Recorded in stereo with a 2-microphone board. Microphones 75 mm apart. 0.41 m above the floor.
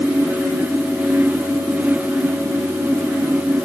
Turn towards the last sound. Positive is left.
No sound to turn to.